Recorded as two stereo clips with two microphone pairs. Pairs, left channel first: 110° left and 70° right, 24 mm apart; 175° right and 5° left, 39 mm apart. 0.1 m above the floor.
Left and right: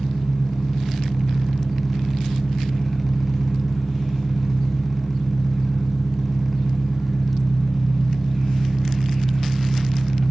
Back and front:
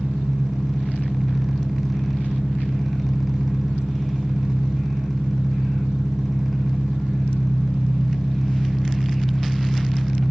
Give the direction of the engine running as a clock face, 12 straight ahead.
10 o'clock.